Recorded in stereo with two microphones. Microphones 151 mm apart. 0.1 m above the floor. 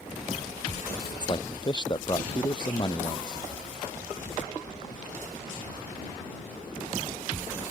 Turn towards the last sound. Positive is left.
turn(degrees=30)  # may be behind; listen again after turning